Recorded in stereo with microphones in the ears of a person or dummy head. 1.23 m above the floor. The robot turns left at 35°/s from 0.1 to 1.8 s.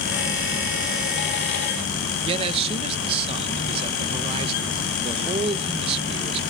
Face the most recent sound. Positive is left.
turn(degrees=-30)  # may be behind; listen again after turning